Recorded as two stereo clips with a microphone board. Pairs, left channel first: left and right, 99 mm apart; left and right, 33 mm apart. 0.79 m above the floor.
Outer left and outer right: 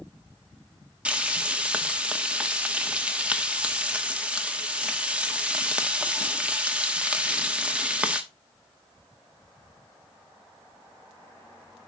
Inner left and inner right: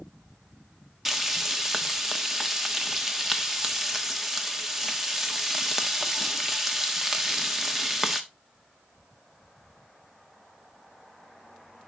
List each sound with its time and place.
1.1 s frying: 10° right (ahead or behind), 1.0 m